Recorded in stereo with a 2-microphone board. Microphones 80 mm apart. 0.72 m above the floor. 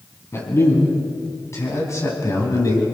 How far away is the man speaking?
About 6 m.